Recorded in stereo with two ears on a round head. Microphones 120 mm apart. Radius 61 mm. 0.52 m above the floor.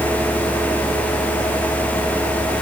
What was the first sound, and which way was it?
Only background noise.